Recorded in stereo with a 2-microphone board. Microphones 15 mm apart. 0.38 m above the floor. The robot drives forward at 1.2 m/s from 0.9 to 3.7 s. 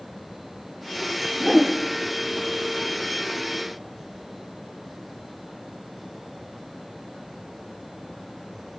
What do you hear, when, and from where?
1.4 s a whoosh: 15° right (ahead or behind), 3.5 m